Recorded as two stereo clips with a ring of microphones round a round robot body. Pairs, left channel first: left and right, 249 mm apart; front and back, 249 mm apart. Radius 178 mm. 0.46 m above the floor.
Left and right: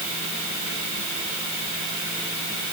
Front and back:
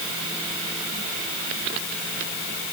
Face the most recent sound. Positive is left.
No sound to turn to.